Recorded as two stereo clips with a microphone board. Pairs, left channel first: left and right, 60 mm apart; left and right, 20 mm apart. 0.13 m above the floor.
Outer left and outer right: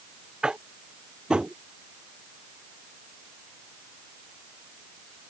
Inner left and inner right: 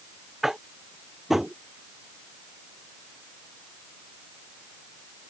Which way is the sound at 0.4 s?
15° right (ahead or behind).